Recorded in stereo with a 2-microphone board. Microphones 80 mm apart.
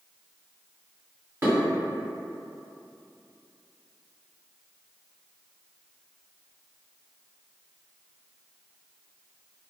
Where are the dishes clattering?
30° right (ahead or behind), 1.6 m.